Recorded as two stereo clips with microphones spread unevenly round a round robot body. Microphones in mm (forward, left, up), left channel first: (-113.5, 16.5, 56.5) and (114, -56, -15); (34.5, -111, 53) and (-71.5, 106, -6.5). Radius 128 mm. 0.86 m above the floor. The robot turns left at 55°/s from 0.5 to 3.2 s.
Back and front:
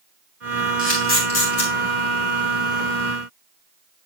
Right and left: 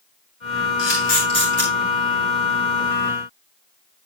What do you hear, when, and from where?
0.8 s a camera shutter: 105° right, 7.5 m; by 1.7 s 155° right, 7.5 m